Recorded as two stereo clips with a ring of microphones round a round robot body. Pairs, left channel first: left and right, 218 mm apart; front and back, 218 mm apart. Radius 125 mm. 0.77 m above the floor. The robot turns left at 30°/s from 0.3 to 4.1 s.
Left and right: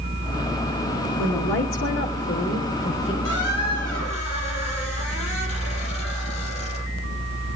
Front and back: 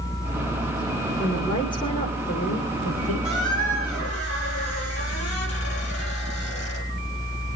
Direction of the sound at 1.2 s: 85° left.